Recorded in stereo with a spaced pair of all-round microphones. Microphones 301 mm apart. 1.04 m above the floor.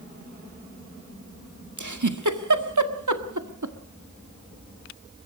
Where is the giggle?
75° right (ahead or behind), 1.7 m.